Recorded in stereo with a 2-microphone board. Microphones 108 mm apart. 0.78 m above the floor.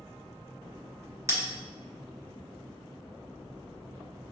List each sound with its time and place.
1.3 s a bell: 30° right (ahead or behind), 1.4 m